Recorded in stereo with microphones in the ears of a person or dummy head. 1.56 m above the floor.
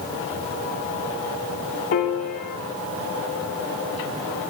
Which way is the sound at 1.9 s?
40° left (ahead or behind).